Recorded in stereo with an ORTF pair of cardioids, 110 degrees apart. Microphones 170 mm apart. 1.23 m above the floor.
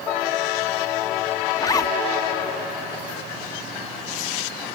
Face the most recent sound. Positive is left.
turn(degrees=25)